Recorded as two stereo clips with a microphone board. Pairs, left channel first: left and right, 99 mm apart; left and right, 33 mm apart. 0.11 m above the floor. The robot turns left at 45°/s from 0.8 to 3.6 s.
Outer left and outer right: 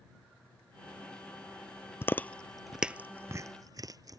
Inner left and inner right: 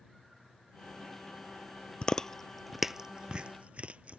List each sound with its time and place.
2.0 s chewing: 25° left (ahead or behind); by 4.2 s 40° right (ahead or behind)